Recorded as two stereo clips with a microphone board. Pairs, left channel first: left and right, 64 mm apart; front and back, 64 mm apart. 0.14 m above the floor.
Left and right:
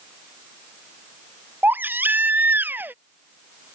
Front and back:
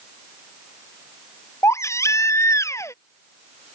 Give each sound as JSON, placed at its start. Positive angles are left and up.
{"t": 1.6, "sound": "a baby crying", "azimuth_deg": -35}